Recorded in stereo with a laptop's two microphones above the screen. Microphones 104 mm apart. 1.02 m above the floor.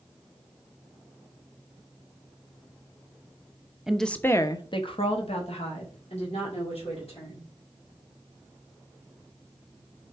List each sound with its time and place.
3.9 s a woman speaking: 5° right (ahead or behind), 1.0 m; by 7.5 s 80° left, 3.5 m